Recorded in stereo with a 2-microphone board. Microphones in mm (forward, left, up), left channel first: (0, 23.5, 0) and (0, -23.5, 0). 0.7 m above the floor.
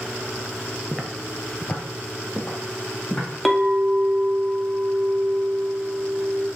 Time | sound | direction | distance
0.9 | footsteps | centre (ahead or behind) | 0.7 m
3.5 | a clink | centre (ahead or behind) | 0.6 m